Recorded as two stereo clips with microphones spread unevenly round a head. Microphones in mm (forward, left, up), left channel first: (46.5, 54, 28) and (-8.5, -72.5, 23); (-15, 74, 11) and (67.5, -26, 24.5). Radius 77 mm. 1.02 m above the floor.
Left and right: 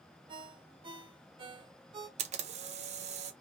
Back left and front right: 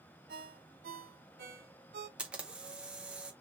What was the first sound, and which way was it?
A ringtone, 60° right.